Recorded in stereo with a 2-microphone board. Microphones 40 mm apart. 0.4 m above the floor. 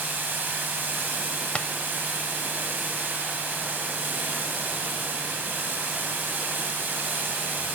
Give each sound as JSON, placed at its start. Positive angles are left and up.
{"t": 0.0, "sound": "running water", "side_deg": -55, "distance_m": 1.9}
{"t": 1.6, "sound": "tapping", "side_deg": 30, "distance_m": 0.5}